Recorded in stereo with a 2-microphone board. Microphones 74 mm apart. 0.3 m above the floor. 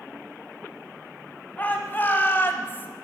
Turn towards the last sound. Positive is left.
turn(degrees=30)  # may be behind; listen again after turning